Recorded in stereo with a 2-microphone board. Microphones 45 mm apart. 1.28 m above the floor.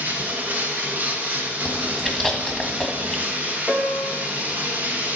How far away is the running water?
About 1.3 m.